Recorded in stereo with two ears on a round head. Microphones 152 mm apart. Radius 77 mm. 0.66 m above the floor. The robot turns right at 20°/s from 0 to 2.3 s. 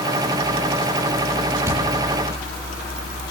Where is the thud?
15° right (ahead or behind), 9.5 m; by 1.8 s 20° right (ahead or behind), 9.5 m.